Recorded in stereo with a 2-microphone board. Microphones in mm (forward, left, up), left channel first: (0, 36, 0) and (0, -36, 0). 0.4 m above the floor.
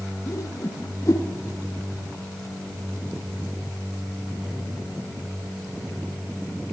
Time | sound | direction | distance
0.3 | a whoosh | 45° left (ahead or behind) | 3 m